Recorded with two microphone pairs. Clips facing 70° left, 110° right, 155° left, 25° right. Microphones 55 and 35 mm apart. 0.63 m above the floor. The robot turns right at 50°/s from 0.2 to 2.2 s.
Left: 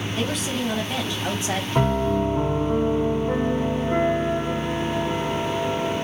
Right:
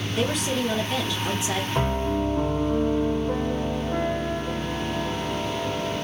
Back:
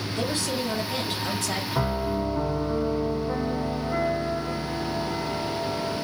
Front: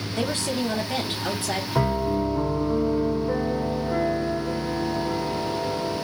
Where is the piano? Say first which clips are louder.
Left 5 dB, front 4 dB; 15° left, 1.7 m; by 6.0 s 35° left, 1.7 m.